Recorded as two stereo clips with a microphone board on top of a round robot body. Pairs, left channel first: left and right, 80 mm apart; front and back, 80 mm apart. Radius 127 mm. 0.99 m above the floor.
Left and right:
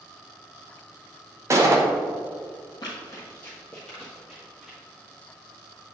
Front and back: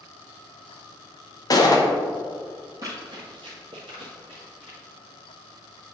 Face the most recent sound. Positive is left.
turn(degrees=-175)